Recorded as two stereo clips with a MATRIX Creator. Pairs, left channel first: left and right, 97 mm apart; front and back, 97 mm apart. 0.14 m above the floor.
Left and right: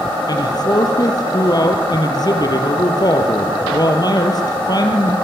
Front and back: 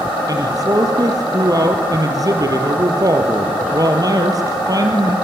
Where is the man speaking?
130° left, 4 m.